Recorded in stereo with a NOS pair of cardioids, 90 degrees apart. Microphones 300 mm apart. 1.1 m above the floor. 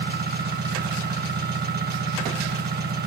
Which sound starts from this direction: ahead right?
An engine running, at 0.0 s.